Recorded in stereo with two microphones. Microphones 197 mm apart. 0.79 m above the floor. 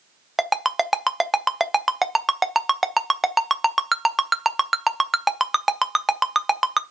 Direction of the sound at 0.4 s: Centre (ahead or behind).